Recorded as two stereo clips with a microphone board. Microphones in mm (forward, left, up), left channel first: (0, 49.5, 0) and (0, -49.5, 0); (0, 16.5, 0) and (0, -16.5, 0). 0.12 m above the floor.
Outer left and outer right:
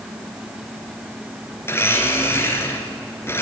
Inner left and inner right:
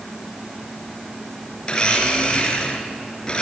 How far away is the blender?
About 1.7 m.